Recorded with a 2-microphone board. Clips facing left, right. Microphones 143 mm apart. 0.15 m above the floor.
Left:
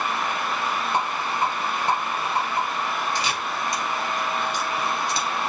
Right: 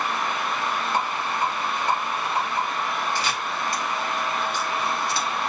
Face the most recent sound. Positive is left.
turn(degrees=20)  # may be behind; listen again after turning